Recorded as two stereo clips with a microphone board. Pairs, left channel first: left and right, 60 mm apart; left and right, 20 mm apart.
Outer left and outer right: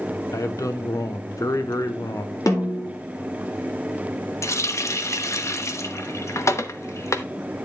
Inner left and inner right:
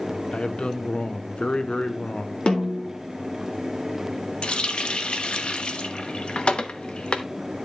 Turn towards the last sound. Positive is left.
turn(degrees=55)  # may be behind; listen again after turning